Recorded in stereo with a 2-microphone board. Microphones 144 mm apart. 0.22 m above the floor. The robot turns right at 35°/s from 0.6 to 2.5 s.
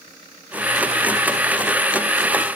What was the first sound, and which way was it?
Only background noise.